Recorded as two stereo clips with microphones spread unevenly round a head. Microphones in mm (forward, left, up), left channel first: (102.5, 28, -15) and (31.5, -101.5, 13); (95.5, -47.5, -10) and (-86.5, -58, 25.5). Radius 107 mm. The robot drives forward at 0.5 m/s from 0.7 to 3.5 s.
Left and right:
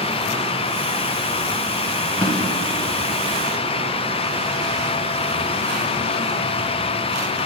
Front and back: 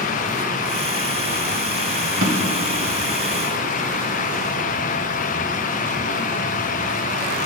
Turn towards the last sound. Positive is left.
turn(degrees=170)